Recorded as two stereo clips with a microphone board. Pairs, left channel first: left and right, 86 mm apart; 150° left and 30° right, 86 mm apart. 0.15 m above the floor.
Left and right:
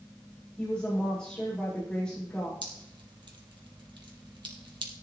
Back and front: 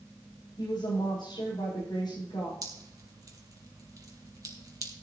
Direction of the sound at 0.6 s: 160° left.